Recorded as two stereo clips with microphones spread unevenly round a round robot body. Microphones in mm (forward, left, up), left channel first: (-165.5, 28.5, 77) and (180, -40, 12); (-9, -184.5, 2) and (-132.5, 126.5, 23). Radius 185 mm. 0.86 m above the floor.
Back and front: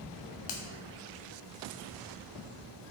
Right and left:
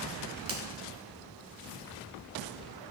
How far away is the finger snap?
About 1.3 m.